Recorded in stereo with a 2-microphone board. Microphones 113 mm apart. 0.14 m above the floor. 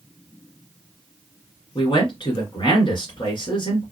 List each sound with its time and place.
1.8 s a man speaking: 45° left (ahead or behind), 2 m